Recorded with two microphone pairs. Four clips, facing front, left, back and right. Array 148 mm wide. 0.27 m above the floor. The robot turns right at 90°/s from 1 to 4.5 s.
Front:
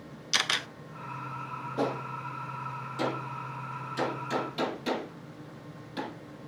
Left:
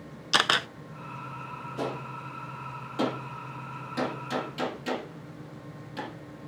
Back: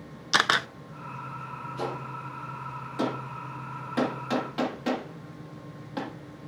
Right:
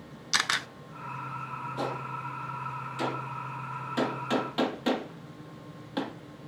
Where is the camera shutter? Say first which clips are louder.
Left 5 dB, back 8 dB; 120° left, 0.5 m.